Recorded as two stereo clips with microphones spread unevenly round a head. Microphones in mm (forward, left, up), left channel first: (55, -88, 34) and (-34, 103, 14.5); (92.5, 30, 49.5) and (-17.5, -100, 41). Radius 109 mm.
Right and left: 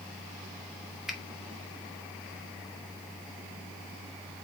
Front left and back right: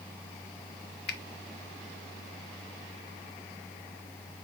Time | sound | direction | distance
1.1 | a finger snap | 30° left | 0.8 m